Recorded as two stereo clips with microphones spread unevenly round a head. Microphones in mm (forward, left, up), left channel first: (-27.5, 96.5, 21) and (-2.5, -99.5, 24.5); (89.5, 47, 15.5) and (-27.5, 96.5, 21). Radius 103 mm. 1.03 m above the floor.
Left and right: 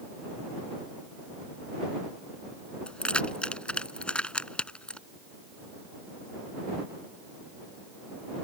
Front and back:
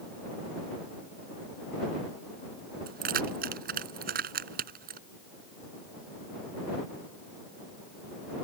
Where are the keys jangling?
175° right.